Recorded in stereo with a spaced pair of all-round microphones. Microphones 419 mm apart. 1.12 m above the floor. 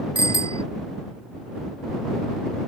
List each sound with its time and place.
0.1 s a bicycle bell: 80° left